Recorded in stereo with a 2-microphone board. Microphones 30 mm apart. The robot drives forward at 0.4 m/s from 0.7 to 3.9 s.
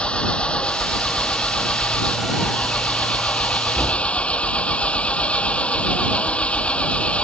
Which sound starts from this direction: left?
An engine running, at 0.0 s.